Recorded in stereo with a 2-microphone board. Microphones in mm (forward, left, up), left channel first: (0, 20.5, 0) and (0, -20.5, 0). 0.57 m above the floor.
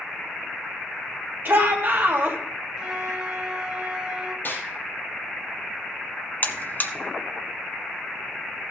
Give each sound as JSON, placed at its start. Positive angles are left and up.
{"t": 1.4, "sound": "a shout", "side_deg": -55, "distance_m": 2.5}
{"t": 2.8, "sound": "a flute", "side_deg": -20, "distance_m": 1.2}
{"t": 4.5, "sound": "a snare drum", "side_deg": 45, "distance_m": 3.5}
{"t": 6.4, "sound": "a buzzer", "side_deg": 40, "distance_m": 0.9}